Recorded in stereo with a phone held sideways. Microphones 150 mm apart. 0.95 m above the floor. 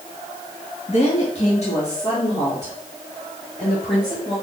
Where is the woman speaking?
45° left (ahead or behind), 1.0 m; by 4.3 s 50° left (ahead or behind), 4 m.